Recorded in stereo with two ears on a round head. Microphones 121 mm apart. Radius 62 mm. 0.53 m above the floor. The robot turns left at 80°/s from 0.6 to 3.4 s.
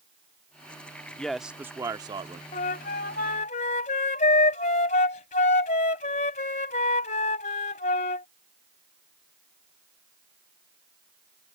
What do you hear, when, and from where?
1.2 s a man speaking: 15° left; by 2.4 s 85° right
2.5 s a flute: 125° left; by 8.3 s 55° left